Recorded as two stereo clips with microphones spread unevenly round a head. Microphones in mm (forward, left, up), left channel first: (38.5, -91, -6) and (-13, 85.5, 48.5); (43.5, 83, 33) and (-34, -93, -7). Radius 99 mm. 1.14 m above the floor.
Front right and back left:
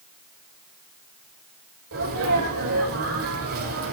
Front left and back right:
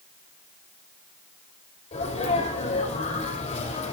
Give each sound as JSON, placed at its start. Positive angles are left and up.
{"t": 1.9, "sound": "a sneeze", "azimuth_deg": 125, "distance_m": 5.0}